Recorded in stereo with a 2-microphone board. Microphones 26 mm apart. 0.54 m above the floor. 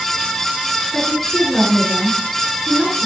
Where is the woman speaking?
5° left (ahead or behind), 6.5 m.